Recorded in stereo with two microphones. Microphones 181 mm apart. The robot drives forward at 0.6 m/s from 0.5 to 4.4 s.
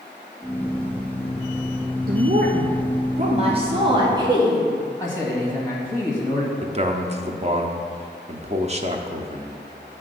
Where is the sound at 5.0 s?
15° left (ahead or behind), 1.8 m.